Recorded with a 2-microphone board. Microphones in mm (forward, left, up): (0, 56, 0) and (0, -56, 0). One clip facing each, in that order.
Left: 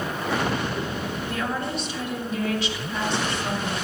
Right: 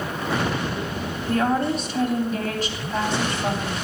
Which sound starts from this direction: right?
A woman speaking, at 1.3 s.